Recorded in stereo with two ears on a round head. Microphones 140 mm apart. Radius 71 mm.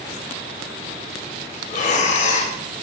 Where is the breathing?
50° left (ahead or behind), 0.5 m.